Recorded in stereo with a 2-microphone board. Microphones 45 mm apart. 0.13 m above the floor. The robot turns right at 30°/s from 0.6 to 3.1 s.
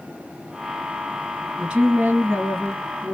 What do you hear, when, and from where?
1.6 s a woman speaking: 160° right, 2.5 m; by 3.1 s 115° right, 2.5 m